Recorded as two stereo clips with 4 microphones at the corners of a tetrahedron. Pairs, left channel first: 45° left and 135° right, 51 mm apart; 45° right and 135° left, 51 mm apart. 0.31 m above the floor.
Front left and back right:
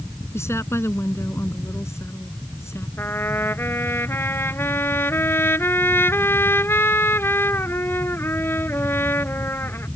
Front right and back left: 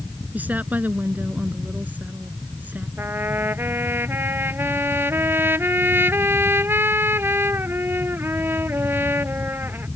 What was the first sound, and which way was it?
A woman speaking, 80° left.